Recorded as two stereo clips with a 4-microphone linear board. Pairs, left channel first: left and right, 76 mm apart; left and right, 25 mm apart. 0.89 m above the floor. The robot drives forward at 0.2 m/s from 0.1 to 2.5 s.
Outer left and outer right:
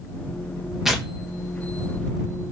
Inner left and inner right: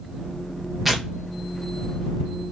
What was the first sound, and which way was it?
Tearing paper, 5° right (ahead or behind).